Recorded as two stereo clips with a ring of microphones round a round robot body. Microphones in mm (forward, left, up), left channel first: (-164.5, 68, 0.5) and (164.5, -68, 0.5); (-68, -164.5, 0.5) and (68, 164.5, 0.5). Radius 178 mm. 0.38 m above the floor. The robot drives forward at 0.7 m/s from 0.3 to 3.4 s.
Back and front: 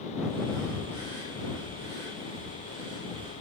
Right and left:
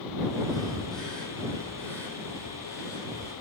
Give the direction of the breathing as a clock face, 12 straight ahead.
1 o'clock.